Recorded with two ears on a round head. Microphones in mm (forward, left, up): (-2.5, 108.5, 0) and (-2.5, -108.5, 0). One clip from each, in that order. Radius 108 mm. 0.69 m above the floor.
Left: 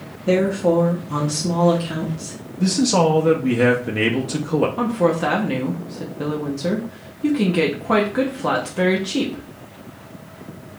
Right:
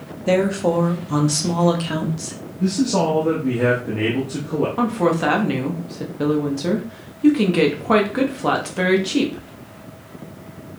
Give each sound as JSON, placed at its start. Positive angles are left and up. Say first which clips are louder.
{"t": 0.3, "sound": "a woman speaking", "louder": "even", "side_deg": -25, "distance_m": 0.8}
{"t": 2.6, "sound": "a man speaking", "louder": "left 3 dB", "side_deg": 45, "distance_m": 0.7}
{"t": 4.8, "sound": "a woman speaking", "louder": "even", "side_deg": -15, "distance_m": 0.7}